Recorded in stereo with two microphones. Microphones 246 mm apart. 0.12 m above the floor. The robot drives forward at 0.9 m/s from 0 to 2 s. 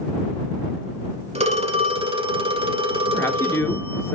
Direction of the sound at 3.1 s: 10° left (ahead or behind).